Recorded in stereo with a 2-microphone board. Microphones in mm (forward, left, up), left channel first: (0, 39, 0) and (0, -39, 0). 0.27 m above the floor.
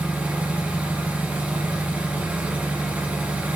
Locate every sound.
0.0 s an engine running: 15° right (ahead or behind), 1.2 m